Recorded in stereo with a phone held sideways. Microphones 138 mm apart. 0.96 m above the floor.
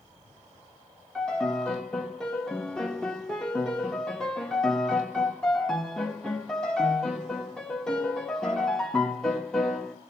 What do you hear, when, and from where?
1.1 s a piano: 5° left (ahead or behind), 1.5 m